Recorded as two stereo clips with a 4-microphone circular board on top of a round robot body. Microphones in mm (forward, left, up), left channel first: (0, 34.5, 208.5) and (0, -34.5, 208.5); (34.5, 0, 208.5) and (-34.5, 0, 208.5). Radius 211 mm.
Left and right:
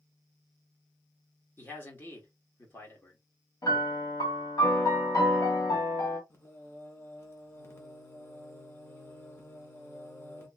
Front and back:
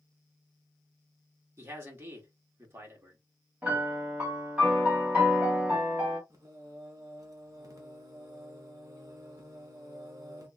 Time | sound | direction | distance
1.6 | a man speaking | 135° left | 1.4 m
3.6 | a piano | 110° left | 1.5 m
6.3 | singing | 145° left | 0.9 m